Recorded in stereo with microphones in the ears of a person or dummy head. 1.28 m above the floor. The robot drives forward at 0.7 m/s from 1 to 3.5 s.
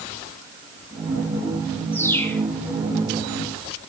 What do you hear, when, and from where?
1.9 s a bird: 10° left (ahead or behind), 1.2 m